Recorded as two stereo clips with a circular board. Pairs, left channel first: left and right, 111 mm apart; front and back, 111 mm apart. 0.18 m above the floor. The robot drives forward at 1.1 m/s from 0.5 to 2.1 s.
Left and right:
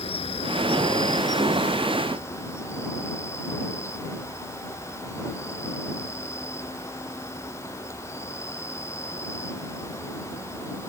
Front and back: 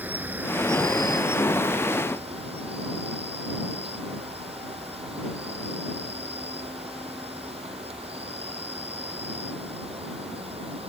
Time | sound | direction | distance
0.0 | an insect | 105° left | ?